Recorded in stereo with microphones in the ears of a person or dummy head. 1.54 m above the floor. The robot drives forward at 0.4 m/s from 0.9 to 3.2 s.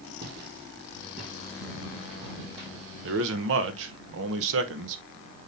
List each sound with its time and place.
0.2 s footsteps: 55° right (ahead or behind), 3.5 m; by 2.7 s 25° right (ahead or behind), 4.5 m
3.0 s a man speaking: 65° right (ahead or behind), 1.1 m